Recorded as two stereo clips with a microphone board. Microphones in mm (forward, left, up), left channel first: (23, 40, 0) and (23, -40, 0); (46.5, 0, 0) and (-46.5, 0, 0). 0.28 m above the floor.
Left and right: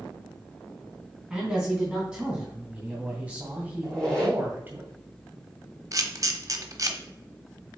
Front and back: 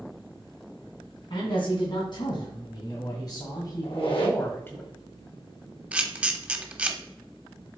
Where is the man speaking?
10° right, 3 m; by 4.8 s 50° right, 1.5 m.